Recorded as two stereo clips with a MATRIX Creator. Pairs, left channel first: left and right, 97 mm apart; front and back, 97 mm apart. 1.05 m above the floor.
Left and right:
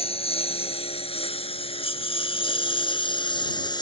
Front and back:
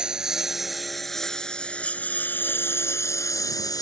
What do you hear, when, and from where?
0.0 s a lawn mower: 100° left; by 3.8 s 50° left